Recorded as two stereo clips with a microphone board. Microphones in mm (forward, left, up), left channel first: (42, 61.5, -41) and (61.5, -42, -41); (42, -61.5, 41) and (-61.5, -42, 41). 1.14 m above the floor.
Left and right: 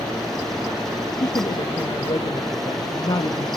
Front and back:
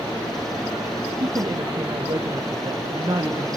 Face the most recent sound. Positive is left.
turn(degrees=130)